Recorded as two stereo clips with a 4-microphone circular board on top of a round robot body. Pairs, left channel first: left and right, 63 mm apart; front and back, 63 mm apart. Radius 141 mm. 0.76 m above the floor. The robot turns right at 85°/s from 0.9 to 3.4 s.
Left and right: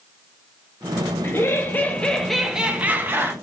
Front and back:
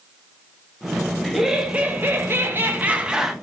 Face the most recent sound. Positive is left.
turn(degrees=-90)